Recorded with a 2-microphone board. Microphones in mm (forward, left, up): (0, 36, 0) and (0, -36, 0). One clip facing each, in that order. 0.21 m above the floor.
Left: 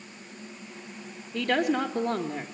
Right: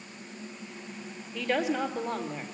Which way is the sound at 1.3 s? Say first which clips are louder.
Left 3 dB; 70° left (ahead or behind).